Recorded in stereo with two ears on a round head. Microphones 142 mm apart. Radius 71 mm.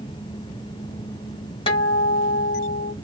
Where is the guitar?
35° left (ahead or behind), 1.1 m.